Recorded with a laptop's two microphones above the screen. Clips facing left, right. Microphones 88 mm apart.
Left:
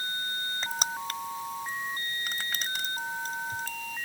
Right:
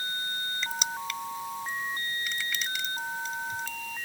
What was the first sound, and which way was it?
Crushing, 45° left (ahead or behind).